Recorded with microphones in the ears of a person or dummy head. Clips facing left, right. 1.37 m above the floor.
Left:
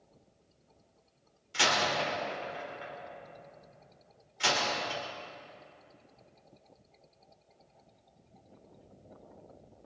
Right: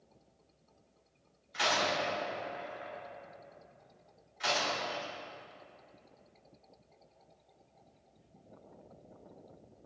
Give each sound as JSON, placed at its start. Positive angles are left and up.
{"t": 1.5, "sound": "a door slam", "side_deg": 45, "distance_m": 3.0}